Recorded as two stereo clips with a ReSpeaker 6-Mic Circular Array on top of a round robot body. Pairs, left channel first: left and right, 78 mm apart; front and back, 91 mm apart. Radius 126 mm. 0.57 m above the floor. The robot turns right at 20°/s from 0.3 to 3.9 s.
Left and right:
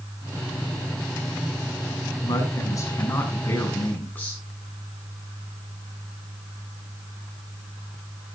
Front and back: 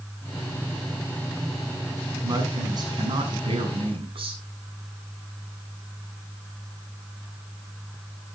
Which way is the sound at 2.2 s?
125° left.